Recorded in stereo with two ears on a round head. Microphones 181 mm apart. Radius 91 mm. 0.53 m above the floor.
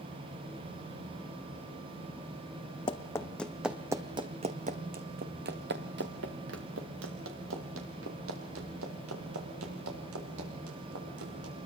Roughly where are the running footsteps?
Left.